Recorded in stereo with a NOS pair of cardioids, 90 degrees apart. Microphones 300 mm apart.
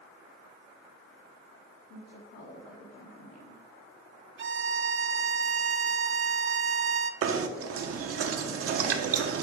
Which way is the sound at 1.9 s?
60° left.